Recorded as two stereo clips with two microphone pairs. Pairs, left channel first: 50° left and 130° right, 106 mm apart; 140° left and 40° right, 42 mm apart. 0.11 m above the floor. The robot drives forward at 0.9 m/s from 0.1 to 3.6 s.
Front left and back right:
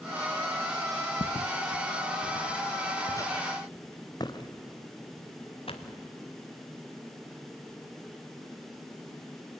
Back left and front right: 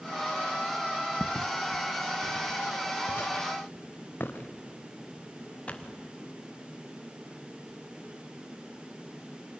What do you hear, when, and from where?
1.2 s footsteps: 70° left, 0.7 m; by 6.0 s 75° left, 2.5 m